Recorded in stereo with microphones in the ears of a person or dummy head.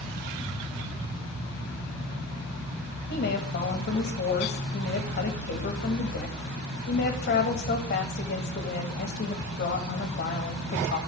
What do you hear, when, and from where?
3.1 s a woman speaking: 45° left (ahead or behind), 1.7 m